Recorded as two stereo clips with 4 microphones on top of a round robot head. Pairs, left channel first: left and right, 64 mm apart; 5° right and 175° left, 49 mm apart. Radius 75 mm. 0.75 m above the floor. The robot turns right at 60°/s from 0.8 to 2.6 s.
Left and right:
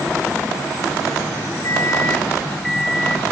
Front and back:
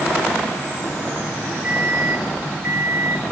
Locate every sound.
1.6 s a microwave: 115° left, 1.0 m; by 3.2 s 175° left, 1.0 m